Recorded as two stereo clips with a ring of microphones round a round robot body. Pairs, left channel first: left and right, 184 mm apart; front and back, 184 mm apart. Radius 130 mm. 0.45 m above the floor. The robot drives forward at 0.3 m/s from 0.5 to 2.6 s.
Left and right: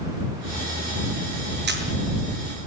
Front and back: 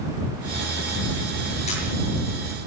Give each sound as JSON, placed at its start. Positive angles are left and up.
{"t": 1.7, "sound": "a camera shutter", "azimuth_deg": -65, "distance_m": 7.0}